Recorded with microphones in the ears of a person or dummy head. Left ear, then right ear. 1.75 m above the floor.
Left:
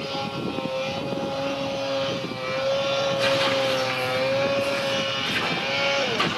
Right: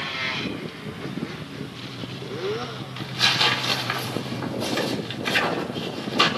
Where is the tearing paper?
25° right (ahead or behind), 4.5 m.